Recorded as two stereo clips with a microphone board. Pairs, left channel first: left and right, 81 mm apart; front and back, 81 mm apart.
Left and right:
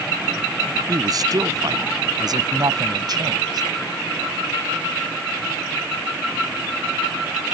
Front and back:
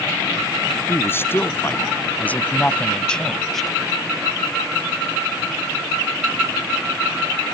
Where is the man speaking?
55° right; by 3.7 s 90° right.